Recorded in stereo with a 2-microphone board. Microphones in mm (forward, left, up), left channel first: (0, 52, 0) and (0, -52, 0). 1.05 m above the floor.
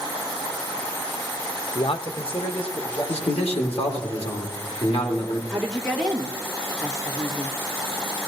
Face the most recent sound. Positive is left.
turn(degrees=5)  # may be behind; listen again after turning